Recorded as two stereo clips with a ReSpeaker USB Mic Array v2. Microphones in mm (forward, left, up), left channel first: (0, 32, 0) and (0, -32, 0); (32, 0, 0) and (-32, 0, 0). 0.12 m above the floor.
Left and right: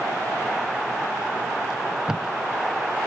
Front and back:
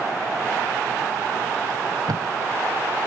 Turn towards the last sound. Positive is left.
turn(degrees=-170)